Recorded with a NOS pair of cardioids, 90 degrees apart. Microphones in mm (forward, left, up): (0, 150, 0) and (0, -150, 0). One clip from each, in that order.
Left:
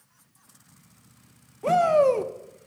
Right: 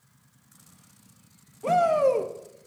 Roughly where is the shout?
Ahead.